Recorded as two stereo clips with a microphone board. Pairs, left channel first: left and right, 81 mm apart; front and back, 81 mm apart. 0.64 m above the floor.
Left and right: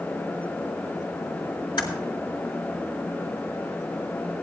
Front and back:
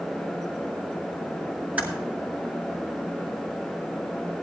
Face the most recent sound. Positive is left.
turn(degrees=110)